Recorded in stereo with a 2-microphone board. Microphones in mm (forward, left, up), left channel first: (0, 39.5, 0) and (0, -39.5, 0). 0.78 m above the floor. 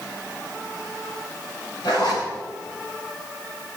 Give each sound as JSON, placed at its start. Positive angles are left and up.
{"t": 1.8, "sound": "a zipper", "side_deg": 85, "distance_m": 8.5}